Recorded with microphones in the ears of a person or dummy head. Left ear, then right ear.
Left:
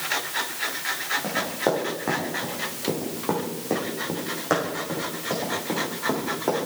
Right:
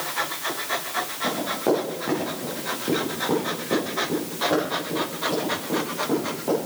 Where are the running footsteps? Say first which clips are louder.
Right 4 dB; 25° left (ahead or behind), 5 m; by 6.6 s 75° left (ahead or behind), 6.5 m.